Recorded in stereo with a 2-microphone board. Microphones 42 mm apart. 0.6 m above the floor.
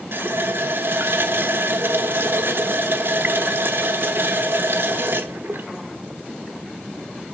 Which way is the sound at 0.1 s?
65° right (ahead or behind).